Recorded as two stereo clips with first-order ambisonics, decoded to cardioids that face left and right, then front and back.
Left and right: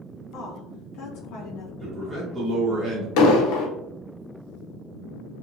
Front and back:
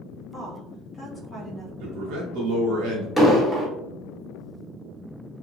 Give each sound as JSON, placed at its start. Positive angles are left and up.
{"t": 0.3, "sound": "a woman speaking", "azimuth_deg": 70, "distance_m": 0.5}
{"t": 1.8, "sound": "a man speaking", "azimuth_deg": -165, "distance_m": 0.8}
{"t": 3.2, "sound": "an explosion", "azimuth_deg": 95, "distance_m": 0.7}